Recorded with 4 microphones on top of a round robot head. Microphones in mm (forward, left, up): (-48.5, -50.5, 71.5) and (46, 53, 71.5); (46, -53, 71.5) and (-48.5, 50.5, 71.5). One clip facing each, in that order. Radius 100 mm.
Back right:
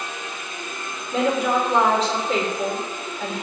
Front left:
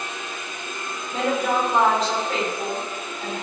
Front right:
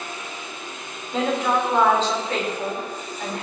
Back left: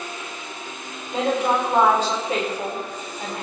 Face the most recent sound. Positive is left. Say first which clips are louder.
# back right 2 dB, back left 1 dB
turn(degrees=-150)